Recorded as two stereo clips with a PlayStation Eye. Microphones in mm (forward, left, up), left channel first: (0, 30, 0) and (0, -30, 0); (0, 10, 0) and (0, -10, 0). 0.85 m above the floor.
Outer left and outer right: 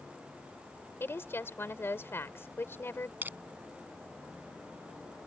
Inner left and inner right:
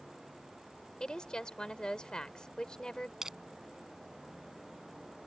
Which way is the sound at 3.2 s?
30° right (ahead or behind).